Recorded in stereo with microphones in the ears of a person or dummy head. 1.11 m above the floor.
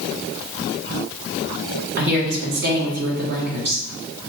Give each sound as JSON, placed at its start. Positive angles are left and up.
{"t": 2.0, "sound": "a woman speaking", "side_deg": -50, "distance_m": 1.4}